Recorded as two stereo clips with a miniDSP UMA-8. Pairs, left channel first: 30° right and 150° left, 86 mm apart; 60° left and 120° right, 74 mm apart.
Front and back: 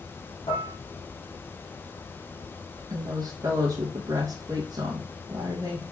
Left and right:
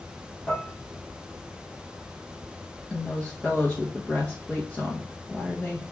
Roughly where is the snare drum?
I don't hear a snare drum.